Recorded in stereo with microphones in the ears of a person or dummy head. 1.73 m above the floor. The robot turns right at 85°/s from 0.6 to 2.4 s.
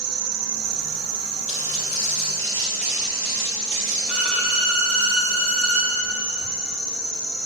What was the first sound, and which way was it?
An insect, 95° right.